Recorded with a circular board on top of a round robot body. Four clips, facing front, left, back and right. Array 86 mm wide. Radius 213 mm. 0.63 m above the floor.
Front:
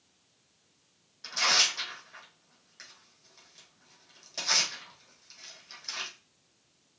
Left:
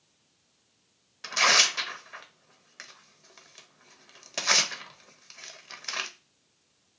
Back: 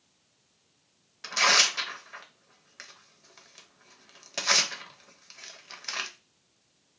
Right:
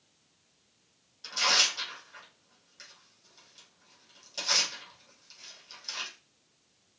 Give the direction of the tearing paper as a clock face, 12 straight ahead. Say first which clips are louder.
Left 6 dB, back 5 dB; 8 o'clock.